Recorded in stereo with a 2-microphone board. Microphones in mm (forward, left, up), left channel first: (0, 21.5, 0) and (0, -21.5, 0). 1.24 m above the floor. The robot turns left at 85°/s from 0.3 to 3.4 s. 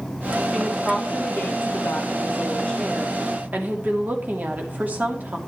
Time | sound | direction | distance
0.5 | a woman speaking | 160° right | 2.5 m